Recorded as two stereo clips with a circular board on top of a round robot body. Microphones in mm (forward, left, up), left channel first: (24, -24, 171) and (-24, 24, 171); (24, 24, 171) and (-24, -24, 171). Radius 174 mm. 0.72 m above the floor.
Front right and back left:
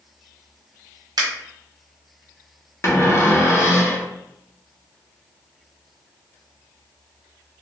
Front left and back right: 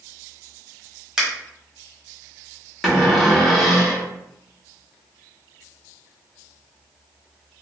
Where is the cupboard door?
45° right, 1.2 m.